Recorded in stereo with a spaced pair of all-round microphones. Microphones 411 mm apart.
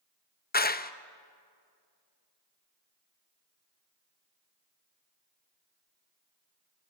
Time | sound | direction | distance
0.5 | a clap | 25° left (ahead or behind) | 0.5 m